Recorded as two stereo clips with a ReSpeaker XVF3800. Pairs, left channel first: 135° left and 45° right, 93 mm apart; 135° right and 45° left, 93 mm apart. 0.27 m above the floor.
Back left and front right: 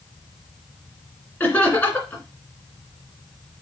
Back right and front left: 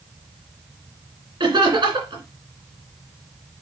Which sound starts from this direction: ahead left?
Laughter, at 1.4 s.